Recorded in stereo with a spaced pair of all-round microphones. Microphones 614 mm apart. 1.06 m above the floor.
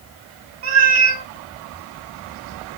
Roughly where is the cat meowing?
Right.